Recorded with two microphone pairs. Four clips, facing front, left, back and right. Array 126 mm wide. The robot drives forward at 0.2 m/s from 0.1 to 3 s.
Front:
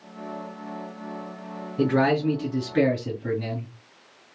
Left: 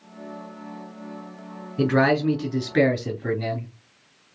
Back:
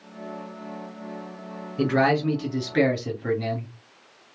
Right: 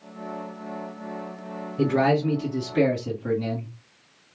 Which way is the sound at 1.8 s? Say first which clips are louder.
Left 1 dB, even; 120° left.